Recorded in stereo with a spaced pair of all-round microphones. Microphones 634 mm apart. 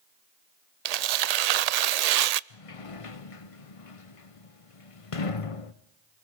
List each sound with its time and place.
0.8 s tearing paper: 75° right (ahead or behind), 0.5 m
2.5 s a sliding door: 55° left (ahead or behind), 0.9 m